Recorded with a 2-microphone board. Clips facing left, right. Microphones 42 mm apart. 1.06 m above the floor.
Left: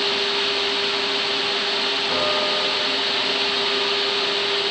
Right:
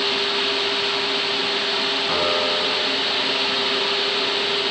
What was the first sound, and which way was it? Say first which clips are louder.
A piano: right 1 dB; 30° right (ahead or behind).